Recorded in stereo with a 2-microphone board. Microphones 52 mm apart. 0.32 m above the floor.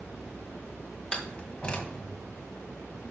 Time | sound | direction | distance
1.1 | a door slam | 20° left (ahead or behind) | 1.7 m